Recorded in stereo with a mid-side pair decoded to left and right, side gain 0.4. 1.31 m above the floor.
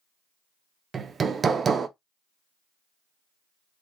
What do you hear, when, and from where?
0.9 s hammering: 50° right, 0.6 m